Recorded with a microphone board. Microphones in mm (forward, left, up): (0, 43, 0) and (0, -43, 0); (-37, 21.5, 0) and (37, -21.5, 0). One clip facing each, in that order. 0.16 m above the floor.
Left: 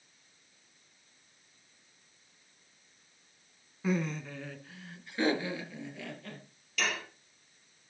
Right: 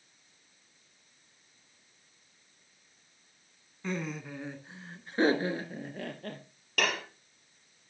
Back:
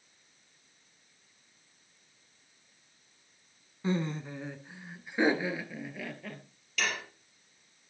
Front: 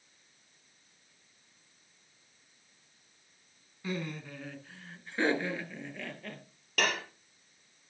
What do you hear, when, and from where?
3.8 s laughter: 165° left, 1.2 m; by 6.4 s 125° right, 3 m
6.8 s dishes clattering: 60° right, 2.5 m